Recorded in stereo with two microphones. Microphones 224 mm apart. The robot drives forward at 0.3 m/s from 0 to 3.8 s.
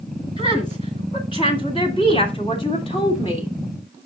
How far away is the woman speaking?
About 1.9 m.